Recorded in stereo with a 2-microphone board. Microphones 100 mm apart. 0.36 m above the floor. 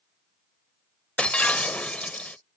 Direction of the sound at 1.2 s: 15° left (ahead or behind).